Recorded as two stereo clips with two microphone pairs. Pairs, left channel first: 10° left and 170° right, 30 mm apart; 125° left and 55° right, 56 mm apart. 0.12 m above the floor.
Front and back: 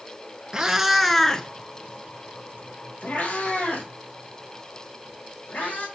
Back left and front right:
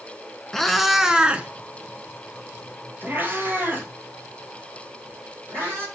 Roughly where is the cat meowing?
Behind.